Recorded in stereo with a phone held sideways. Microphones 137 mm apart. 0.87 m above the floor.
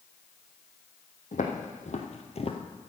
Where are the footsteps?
70° left (ahead or behind), 2.5 m; by 2.6 s 40° left (ahead or behind), 1.1 m.